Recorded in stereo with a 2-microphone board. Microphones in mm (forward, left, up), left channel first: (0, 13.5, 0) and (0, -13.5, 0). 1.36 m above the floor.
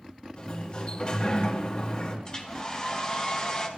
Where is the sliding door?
50° left (ahead or behind), 2.5 m.